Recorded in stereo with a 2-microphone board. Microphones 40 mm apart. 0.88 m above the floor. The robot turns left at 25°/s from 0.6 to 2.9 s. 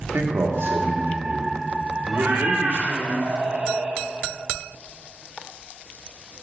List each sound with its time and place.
0.1 s a man speaking: 95° right, 1.1 m; by 3.1 s 155° right, 1.1 m
2.1 s a cat meowing: 55° right (ahead or behind), 0.9 m; by 4.0 s 35° right (ahead or behind), 0.9 m